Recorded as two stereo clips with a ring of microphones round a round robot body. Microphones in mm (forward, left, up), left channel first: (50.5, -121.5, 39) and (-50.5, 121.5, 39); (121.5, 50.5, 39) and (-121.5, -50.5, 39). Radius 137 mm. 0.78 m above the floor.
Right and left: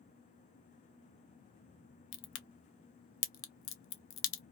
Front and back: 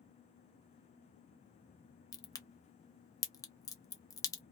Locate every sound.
2.1 s a crack: 50° right, 0.8 m